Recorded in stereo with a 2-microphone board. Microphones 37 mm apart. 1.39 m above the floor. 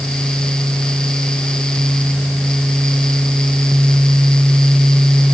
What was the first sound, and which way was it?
Only background noise.